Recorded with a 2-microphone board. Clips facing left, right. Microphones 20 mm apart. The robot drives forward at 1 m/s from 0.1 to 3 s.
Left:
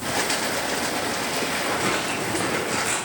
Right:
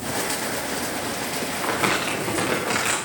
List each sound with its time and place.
1.6 s crumpling: 80° right, 8.5 m; by 3.0 s 85° right, 8 m